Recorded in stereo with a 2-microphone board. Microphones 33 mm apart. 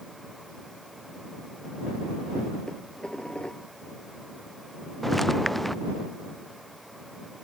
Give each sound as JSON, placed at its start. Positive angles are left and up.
{"t": 2.7, "sound": "dishes clattering", "side_deg": 25}
{"t": 5.0, "sound": "footsteps", "side_deg": 5}